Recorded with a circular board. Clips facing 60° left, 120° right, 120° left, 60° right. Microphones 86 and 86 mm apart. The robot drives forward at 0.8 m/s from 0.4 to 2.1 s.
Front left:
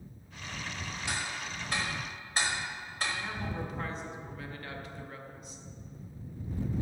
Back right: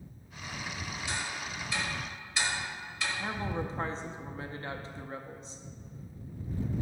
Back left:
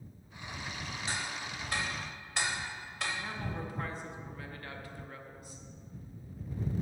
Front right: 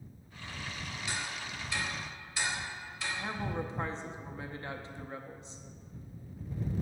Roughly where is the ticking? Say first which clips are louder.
Front left 1 dB, back left 1 dB; ahead left.